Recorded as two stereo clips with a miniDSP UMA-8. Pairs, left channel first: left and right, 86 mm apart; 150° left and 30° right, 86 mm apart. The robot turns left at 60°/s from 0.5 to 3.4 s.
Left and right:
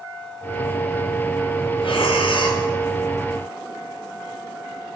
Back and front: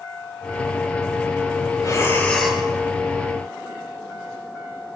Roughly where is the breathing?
Left.